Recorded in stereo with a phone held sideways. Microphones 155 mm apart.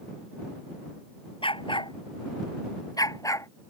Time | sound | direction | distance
1.4 | a dog barking | 35° left (ahead or behind) | ?